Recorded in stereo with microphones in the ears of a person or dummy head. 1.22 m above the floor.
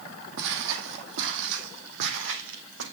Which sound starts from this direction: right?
Footsteps, at 0.4 s.